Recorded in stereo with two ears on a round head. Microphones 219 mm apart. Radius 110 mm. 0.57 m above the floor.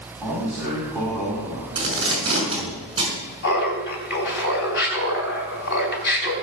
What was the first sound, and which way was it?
A man speaking, 5° right (ahead or behind).